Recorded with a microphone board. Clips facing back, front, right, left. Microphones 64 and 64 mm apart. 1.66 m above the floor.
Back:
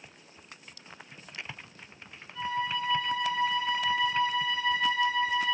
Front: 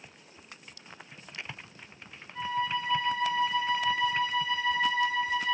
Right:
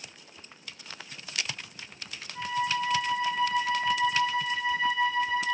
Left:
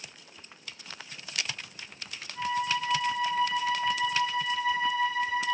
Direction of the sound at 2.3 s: 55° right.